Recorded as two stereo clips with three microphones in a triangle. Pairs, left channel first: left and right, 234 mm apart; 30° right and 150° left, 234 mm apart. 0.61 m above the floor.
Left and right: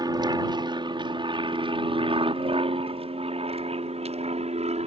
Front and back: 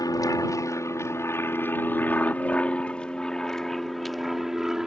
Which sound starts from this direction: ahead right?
An aircraft, at 0.0 s.